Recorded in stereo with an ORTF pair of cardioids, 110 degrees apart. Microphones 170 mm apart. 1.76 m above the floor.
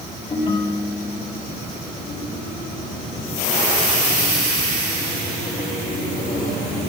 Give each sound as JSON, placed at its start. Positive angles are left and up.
{"t": 0.3, "sound": "a ringtone", "azimuth_deg": 30, "distance_m": 7.0}